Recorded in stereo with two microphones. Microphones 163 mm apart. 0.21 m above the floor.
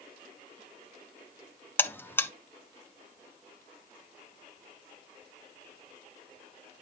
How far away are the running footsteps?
I don't hear running footsteps.